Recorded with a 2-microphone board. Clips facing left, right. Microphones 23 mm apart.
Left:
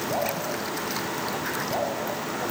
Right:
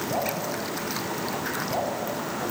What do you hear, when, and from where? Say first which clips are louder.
0.1 s dripping: even; 5° left (ahead or behind), 5.5 m